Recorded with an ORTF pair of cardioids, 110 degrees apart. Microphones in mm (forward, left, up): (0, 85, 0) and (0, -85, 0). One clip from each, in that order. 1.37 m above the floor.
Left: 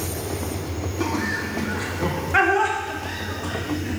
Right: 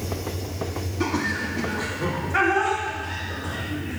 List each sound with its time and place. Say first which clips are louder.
1.0 s laughter: even; 5° left, 3 m; by 4.0 s 60° left, 3.5 m